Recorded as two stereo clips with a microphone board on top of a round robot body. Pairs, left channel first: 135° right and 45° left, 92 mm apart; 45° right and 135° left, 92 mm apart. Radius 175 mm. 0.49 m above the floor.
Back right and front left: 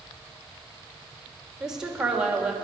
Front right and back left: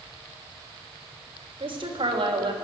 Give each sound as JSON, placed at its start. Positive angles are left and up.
{"t": 1.6, "sound": "a woman speaking", "azimuth_deg": 130, "distance_m": 2.5}